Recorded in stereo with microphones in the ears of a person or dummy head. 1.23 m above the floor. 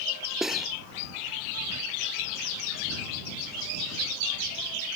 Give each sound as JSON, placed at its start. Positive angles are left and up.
{"t": 0.4, "sound": "cutlery clinking", "side_deg": 0}